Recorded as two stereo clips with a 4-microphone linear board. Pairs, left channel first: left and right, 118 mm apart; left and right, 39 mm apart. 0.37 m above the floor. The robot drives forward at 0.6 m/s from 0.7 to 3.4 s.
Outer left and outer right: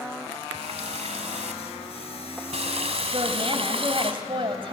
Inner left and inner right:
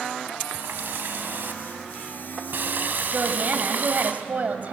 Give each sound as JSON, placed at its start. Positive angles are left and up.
{"t": 0.5, "sound": "a running tap", "side_deg": -60, "distance_m": 1.9}
{"t": 3.1, "sound": "a woman speaking", "side_deg": -50, "distance_m": 2.0}